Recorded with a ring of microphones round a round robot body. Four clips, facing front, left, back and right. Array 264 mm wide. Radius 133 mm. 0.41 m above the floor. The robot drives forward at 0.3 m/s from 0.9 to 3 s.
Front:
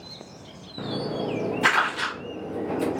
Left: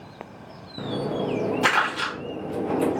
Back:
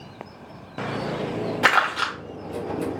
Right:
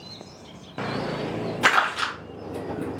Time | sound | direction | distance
1.6 | crumpling | 165° right | 1.2 m